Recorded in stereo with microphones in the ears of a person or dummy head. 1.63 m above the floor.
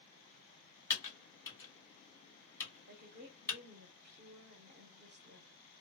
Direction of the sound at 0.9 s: 10° left (ahead or behind).